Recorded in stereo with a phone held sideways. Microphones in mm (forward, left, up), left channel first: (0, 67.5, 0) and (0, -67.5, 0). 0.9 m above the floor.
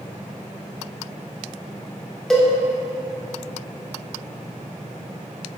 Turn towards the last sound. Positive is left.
turn(degrees=0)  # may be behind; listen again after turning